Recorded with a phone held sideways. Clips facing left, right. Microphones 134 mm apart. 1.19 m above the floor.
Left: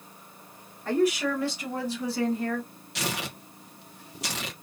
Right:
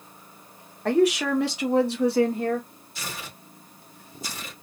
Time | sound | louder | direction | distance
0.8 | a woman speaking | right 4 dB | 80° right | 1.2 m
3.0 | tearing paper | left 6 dB | 80° left | 0.7 m